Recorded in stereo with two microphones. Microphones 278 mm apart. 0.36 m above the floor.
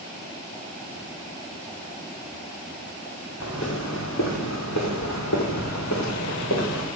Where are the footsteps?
60° left (ahead or behind), 2.5 m.